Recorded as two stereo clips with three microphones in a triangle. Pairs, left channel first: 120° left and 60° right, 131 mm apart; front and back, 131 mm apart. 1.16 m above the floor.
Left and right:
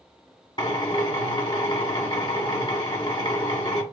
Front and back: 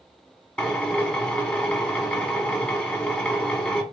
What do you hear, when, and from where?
0.6 s a drill: 75° left, 0.9 m